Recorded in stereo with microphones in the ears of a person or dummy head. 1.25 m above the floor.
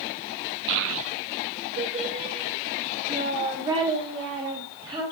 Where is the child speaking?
65° right (ahead or behind), 0.7 m; by 5.0 s 20° right (ahead or behind), 4.5 m.